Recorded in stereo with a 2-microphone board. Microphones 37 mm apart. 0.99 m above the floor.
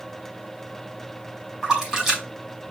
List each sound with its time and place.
1.6 s a splash: 10° right (ahead or behind), 3.5 m